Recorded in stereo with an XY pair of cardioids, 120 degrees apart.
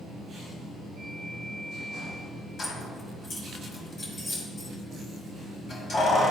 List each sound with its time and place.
2.6 s keys jangling: 40° left, 2.5 m